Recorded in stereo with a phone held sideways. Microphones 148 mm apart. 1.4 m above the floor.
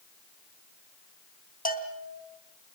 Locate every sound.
1.6 s a bell: 70° left (ahead or behind), 3 m